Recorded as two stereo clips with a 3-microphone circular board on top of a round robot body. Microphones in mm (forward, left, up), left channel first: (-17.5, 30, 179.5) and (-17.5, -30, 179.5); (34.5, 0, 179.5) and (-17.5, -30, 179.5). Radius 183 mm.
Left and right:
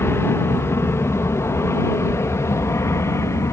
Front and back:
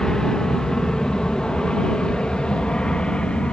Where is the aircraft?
105° left; by 3.5 s 100° left.